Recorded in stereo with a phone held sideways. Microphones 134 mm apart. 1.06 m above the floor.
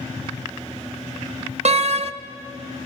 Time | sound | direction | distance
1.6 | a door slam | 55° right (ahead or behind) | 0.7 m